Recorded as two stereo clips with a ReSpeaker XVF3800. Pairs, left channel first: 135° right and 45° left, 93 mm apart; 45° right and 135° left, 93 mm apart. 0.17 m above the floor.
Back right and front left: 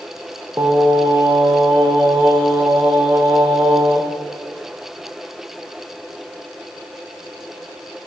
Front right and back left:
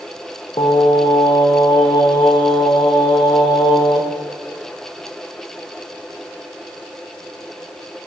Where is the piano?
No piano in this recording.